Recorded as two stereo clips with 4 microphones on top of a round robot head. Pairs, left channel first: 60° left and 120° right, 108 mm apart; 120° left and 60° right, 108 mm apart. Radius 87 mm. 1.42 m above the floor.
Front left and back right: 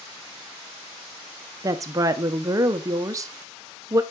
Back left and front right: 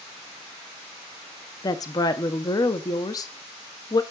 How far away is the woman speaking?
About 0.7 m.